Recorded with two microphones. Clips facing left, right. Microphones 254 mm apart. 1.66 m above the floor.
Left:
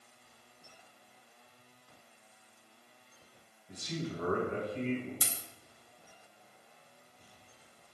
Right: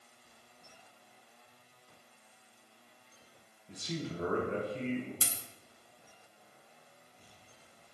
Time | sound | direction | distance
3.7 | a man speaking | 30° right (ahead or behind) | 2.5 m
5.2 | a dropped coin | 30° right (ahead or behind) | 1.1 m